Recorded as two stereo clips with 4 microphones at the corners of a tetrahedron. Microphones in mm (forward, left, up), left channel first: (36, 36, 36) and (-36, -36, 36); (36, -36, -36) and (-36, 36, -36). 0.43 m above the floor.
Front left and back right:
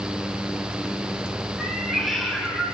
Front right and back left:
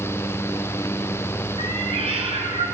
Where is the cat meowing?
135° left, 1.6 m.